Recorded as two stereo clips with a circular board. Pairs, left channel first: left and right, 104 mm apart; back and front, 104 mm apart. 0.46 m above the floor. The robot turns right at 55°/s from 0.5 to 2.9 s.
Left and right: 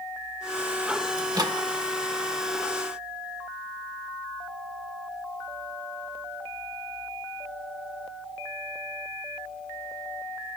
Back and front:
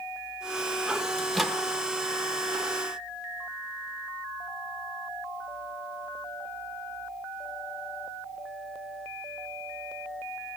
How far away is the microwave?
About 0.8 m.